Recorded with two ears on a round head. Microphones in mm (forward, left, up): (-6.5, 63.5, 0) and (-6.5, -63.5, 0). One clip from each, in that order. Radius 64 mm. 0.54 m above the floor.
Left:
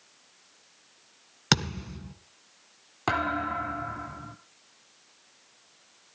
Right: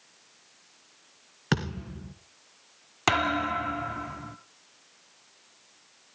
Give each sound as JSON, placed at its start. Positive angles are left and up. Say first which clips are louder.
{"t": 1.5, "sound": "a thud", "louder": "left 5 dB", "side_deg": 80, "distance_m": 2.0}
{"t": 3.1, "sound": "a thud", "louder": "right 3 dB", "side_deg": -65, "distance_m": 1.2}